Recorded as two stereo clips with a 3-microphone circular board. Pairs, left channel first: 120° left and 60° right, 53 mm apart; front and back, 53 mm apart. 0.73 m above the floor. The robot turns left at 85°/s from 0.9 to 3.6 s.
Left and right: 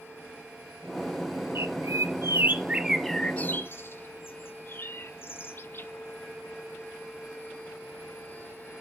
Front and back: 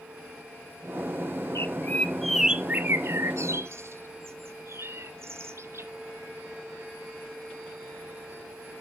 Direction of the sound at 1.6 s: 25° right.